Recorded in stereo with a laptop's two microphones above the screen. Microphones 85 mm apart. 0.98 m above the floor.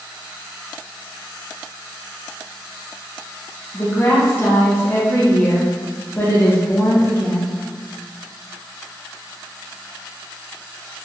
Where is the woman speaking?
30° left (ahead or behind), 0.9 m.